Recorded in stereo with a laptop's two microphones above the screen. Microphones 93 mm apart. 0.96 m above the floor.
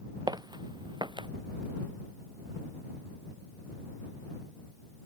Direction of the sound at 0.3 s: 45° right (ahead or behind).